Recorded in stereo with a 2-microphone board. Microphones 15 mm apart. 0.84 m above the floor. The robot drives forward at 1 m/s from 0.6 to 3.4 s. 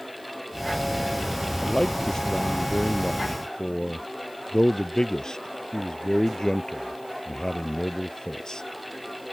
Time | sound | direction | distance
1.6 | a man speaking | 40° left (ahead or behind) | ?